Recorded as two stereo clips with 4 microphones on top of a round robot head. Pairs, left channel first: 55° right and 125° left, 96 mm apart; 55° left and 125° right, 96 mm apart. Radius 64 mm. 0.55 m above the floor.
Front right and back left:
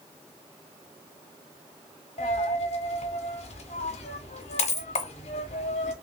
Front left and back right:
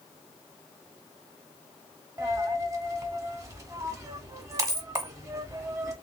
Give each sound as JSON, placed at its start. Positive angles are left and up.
{"t": 2.2, "sound": "a dropped coin", "azimuth_deg": -65, "distance_m": 1.1}